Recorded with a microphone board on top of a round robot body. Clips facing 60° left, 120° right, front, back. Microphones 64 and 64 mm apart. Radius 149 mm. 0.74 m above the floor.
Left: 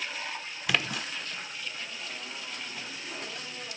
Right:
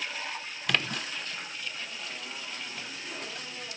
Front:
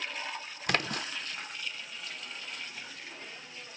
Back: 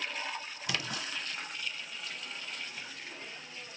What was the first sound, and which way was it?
A splash, 25° right.